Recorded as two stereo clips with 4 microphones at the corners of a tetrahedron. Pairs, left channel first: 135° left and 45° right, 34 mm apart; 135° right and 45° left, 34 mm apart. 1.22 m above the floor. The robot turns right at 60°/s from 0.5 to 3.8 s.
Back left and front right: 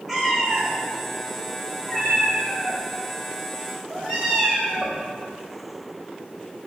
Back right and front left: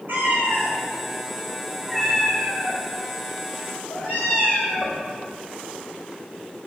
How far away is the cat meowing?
About 3.5 m.